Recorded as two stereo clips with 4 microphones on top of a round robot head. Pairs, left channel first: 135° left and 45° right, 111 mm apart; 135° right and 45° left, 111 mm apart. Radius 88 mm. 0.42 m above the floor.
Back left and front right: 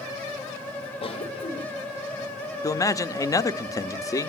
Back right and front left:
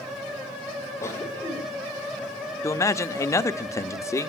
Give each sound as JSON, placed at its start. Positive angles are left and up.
{"t": 1.0, "sound": "a cough", "azimuth_deg": 165, "distance_m": 3.0}
{"t": 2.6, "sound": "a man speaking", "azimuth_deg": 175, "distance_m": 1.2}